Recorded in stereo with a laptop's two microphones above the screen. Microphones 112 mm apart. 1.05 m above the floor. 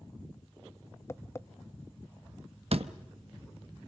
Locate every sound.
1.1 s tapping: 25° left (ahead or behind), 0.5 m
2.7 s a door slam: 60° right (ahead or behind), 1.0 m